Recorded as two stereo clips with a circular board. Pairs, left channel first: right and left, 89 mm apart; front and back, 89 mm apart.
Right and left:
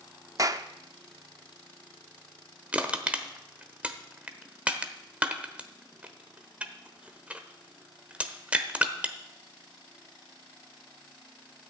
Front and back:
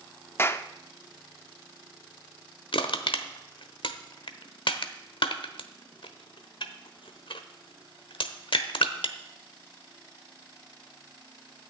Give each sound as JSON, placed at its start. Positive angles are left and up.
{"t": 0.4, "sound": "a clap", "azimuth_deg": 55, "distance_m": 0.6}
{"t": 2.7, "sound": "crushing", "azimuth_deg": 15, "distance_m": 1.0}